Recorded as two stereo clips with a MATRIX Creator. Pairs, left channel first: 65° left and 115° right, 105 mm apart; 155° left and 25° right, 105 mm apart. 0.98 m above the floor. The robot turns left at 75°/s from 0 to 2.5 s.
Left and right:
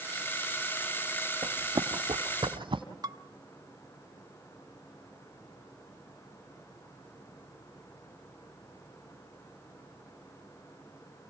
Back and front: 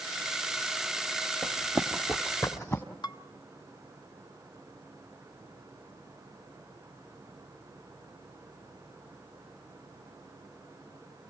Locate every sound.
1.4 s running footsteps: 105° right, 2.0 m; by 2.8 s 135° right, 2 m
3.0 s dishes clattering: 160° right, 1.2 m